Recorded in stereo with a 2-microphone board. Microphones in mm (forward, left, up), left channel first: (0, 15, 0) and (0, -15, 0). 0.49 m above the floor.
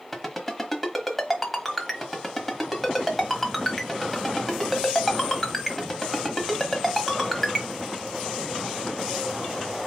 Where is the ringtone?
Centre (ahead or behind), 1.1 m.